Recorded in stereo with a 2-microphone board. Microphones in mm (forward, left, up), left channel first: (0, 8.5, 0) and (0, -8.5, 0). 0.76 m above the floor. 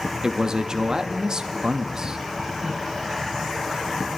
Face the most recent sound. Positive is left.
turn(degrees=-40)  # may be behind; listen again after turning